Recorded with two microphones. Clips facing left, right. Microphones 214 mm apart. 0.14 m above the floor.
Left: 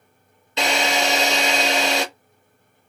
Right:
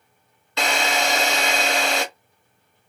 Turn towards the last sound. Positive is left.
turn(degrees=20)  # may be behind; listen again after turning